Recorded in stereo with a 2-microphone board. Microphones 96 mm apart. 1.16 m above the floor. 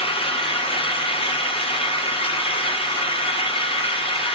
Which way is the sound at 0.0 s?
75° left (ahead or behind).